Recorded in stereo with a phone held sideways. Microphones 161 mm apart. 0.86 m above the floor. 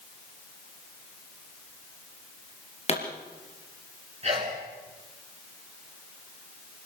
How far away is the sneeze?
About 3 m.